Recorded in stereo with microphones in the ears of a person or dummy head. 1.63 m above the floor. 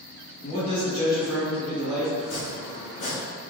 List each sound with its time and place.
0.4 s a man speaking: 30° left (ahead or behind), 1.4 m; by 2.1 s 5° right (ahead or behind), 1.7 m
2.2 s chopping: 45° left (ahead or behind), 0.6 m